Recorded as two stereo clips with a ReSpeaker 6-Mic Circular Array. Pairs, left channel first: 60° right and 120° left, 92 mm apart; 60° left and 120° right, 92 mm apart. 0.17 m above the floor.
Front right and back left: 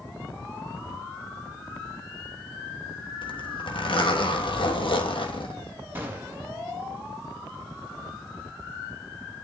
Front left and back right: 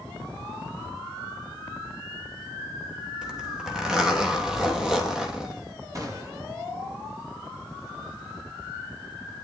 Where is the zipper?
35° right, 2.5 m.